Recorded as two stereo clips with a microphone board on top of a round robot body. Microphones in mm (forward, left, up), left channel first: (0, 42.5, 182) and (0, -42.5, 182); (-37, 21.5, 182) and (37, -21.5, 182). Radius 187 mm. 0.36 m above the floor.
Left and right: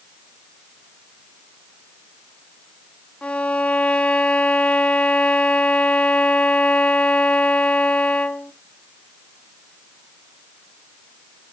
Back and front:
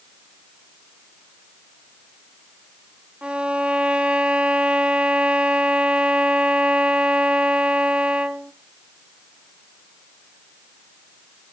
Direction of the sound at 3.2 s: 30° left.